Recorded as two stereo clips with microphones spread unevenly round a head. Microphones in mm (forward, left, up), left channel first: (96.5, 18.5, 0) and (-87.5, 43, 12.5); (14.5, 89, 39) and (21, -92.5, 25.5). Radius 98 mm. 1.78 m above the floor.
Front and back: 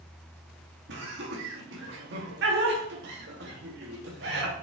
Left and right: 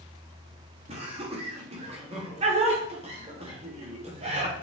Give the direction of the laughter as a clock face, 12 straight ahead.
5 o'clock.